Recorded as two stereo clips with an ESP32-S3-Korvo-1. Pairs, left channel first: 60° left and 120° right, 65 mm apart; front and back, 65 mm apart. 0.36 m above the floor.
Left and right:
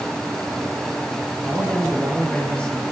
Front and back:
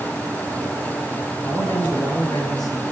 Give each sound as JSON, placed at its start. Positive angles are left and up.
{"t": 1.4, "sound": "a man speaking", "azimuth_deg": -20, "distance_m": 9.0}